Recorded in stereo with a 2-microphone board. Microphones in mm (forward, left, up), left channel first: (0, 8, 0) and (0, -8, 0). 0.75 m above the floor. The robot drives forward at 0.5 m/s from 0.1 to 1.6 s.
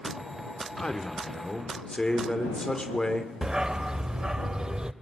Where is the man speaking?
60° left (ahead or behind), 2.5 m; by 3.3 s 55° left (ahead or behind), 2.5 m.